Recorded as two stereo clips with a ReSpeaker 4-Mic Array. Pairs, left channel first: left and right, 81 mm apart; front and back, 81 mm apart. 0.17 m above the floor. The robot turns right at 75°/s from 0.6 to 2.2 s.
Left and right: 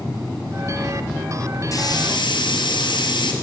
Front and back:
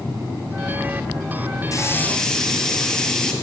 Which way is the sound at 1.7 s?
45° left.